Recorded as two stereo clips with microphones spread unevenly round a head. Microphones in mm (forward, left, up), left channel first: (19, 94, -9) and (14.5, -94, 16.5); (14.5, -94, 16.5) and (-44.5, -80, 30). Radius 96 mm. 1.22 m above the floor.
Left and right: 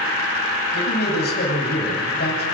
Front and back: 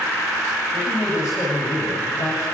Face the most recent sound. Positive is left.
turn(degrees=50)